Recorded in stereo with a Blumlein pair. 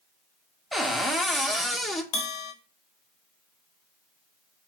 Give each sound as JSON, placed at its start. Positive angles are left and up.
{"t": 0.7, "sound": "a cupboard door", "azimuth_deg": 0, "distance_m": 0.5}
{"t": 2.1, "sound": "a bell", "azimuth_deg": 40, "distance_m": 0.6}